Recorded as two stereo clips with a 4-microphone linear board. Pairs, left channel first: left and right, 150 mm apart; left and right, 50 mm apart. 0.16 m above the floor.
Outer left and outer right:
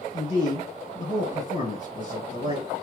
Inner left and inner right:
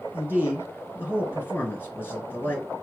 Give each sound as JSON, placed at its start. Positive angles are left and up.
{"t": 0.1, "sound": "a man speaking", "side_deg": 45, "distance_m": 1.6}